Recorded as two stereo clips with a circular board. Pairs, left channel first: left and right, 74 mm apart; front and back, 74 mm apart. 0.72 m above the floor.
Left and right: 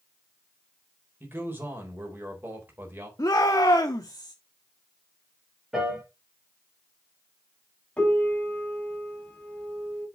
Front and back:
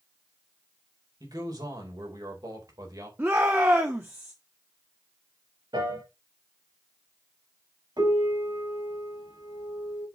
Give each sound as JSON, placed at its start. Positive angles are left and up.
{"t": 1.2, "sound": "a man speaking", "azimuth_deg": -150, "distance_m": 4.0}
{"t": 3.2, "sound": "a shout", "azimuth_deg": 125, "distance_m": 1.1}
{"t": 5.7, "sound": "a piano", "azimuth_deg": -175, "distance_m": 4.0}
{"t": 8.0, "sound": "a piano", "azimuth_deg": 165, "distance_m": 4.5}